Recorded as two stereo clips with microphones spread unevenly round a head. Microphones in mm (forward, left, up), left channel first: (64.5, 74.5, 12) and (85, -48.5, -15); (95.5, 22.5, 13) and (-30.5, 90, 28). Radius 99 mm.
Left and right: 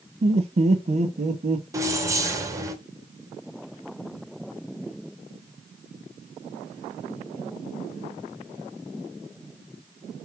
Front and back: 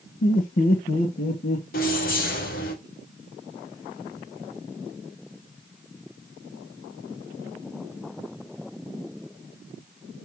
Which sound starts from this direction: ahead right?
Laughter, at 0.2 s.